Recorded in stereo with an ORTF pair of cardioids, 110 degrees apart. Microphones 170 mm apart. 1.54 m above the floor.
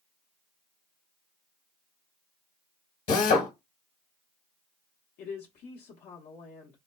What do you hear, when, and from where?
3.1 s a drill: 55° left, 1.2 m
5.2 s a woman speaking: 65° left, 0.8 m